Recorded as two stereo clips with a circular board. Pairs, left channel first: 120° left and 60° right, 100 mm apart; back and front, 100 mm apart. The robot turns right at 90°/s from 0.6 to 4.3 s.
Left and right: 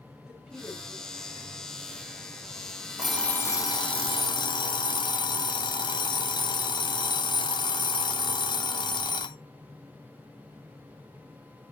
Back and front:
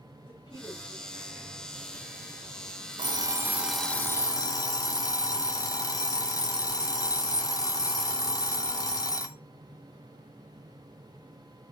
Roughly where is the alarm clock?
Ahead.